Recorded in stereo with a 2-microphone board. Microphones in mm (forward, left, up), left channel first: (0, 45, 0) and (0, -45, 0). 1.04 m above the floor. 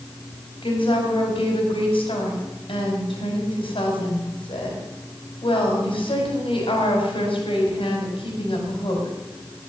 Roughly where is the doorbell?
No doorbell in this recording.